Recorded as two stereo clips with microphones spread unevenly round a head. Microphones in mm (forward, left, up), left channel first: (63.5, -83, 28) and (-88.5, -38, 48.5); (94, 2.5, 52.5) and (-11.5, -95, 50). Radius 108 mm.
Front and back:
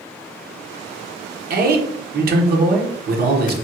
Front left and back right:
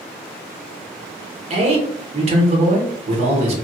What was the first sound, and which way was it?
A man speaking, straight behind.